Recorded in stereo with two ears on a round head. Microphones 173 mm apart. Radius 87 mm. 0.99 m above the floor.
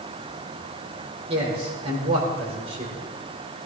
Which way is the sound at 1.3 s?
30° right (ahead or behind).